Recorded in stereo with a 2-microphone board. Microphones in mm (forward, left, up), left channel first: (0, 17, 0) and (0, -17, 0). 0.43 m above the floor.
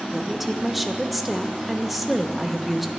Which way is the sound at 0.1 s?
Centre (ahead or behind).